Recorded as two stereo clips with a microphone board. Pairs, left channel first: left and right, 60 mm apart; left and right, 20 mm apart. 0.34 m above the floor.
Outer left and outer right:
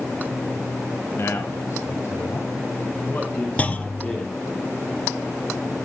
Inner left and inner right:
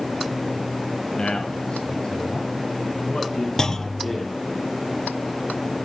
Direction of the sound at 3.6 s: 25° left (ahead or behind).